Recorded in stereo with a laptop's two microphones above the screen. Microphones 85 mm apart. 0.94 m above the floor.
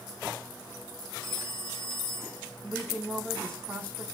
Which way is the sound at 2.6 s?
30° right (ahead or behind).